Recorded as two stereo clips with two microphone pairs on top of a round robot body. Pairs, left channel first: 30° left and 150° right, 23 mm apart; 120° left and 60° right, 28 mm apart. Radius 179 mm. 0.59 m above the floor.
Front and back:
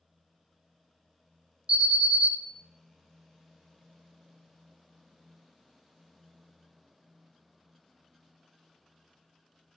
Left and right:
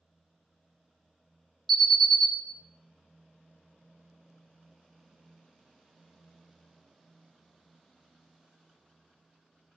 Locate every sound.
1.7 s an alarm: 160° right, 1.7 m